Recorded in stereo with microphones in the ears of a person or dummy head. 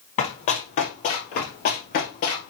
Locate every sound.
0.2 s running footsteps: 40° left (ahead or behind), 2.5 m; by 2.5 s 45° left (ahead or behind), 2 m